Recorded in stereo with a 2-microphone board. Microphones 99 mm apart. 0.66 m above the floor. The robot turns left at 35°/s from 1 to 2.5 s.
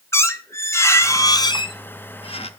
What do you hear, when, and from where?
0.1 s a squeak: 150° left, 0.8 m; by 2.5 s 100° left, 0.8 m